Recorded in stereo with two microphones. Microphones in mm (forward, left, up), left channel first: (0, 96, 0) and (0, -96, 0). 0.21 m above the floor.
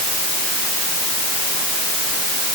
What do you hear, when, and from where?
Only background noise.